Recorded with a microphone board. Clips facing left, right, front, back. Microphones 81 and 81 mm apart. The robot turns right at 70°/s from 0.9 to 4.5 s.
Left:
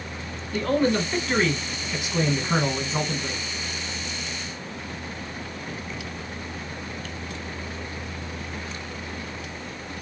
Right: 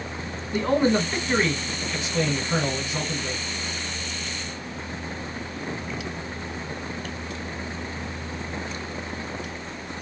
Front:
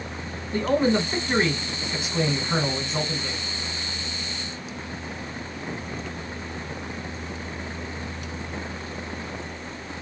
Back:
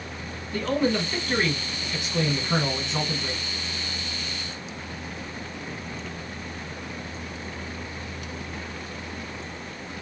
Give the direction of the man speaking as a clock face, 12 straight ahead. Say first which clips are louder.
Right 1 dB, front 3 dB; 1 o'clock.